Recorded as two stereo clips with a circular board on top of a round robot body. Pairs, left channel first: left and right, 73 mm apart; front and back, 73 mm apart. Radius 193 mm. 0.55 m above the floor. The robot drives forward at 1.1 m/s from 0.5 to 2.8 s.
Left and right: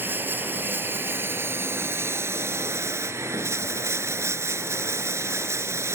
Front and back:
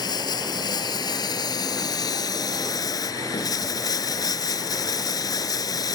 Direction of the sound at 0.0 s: 25° right.